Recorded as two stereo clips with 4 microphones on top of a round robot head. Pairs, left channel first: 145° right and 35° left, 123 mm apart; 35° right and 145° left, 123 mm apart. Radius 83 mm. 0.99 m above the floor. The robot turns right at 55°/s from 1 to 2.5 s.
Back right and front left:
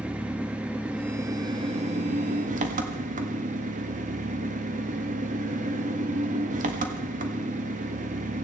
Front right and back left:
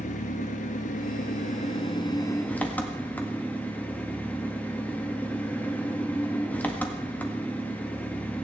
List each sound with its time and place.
0.0 s an engine running: 45° right, 1.7 m; by 8.4 s 40° left, 1.7 m